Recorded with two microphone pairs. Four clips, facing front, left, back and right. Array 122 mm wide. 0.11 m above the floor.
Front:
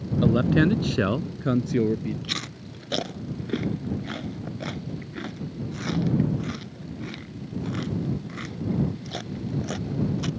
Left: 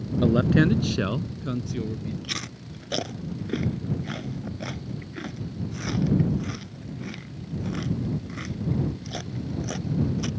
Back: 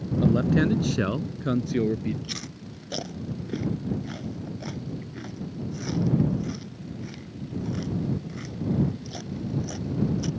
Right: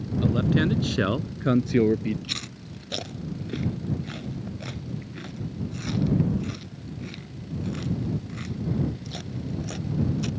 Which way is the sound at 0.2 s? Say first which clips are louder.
Left 3 dB, front 2 dB; 55° left.